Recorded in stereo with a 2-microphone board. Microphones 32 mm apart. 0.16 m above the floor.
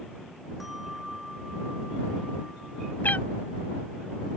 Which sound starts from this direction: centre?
A bell, at 0.6 s.